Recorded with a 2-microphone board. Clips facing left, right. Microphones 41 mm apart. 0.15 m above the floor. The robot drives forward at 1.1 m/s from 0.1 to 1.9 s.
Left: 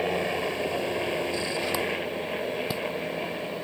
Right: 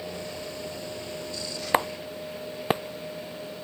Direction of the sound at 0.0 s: 55° left (ahead or behind).